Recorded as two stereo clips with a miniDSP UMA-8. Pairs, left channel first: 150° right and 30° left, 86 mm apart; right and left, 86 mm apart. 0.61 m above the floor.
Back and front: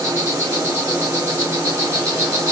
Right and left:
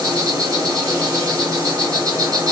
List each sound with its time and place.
0.0 s an insect: 70° left, 2.5 m